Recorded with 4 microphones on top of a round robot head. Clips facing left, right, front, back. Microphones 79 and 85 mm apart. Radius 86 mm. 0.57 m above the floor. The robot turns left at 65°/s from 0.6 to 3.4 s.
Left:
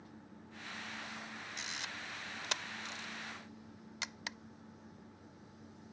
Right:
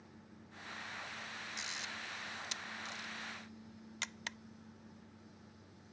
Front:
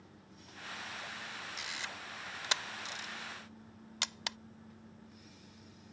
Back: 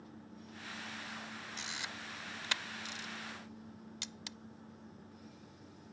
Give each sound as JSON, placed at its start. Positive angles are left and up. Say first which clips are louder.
{"t": 1.6, "sound": "a camera shutter", "louder": "left 2 dB, front 1 dB", "azimuth_deg": 125}